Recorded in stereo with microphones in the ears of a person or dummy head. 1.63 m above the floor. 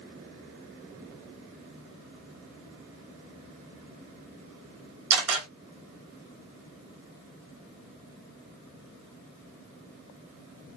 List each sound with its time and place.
5.1 s a camera shutter: 75° right (ahead or behind), 3 m